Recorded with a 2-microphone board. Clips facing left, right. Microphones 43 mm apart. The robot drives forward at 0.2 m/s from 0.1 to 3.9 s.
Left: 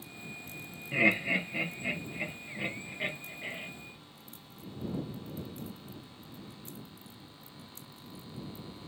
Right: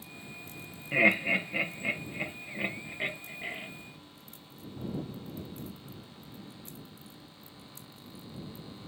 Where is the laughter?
25° right (ahead or behind), 0.8 m; by 3.7 s 20° right (ahead or behind), 1.1 m.